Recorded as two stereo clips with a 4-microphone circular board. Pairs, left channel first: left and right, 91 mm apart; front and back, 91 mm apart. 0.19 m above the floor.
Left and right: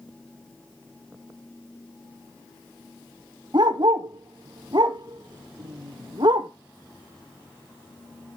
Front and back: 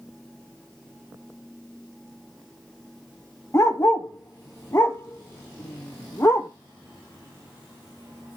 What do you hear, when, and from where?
3.5 s a dog barking: 60° right, 1.5 m